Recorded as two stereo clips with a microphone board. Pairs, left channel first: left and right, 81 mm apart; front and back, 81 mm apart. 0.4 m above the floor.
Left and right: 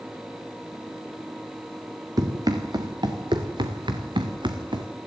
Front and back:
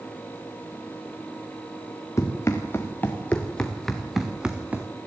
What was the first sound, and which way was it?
Running footsteps, 50° right.